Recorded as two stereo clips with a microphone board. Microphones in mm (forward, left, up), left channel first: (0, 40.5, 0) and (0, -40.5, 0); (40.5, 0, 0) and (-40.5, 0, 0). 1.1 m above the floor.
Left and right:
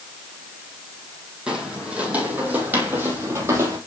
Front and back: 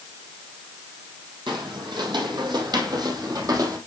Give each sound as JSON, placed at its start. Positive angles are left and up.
{"t": 1.5, "sound": "footsteps", "azimuth_deg": -170, "distance_m": 3.0}